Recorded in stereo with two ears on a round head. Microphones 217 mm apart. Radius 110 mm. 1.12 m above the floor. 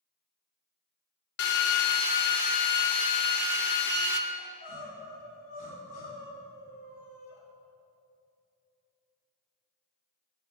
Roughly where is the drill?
Left.